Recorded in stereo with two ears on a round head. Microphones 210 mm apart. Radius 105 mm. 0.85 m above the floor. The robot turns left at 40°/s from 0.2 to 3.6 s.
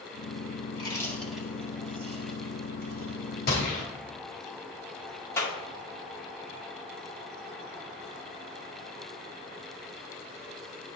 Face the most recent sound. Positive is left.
turn(degrees=10)  # may be behind; listen again after turning